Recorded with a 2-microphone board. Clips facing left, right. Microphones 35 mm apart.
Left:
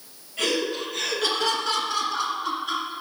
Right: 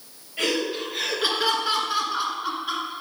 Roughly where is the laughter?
Centre.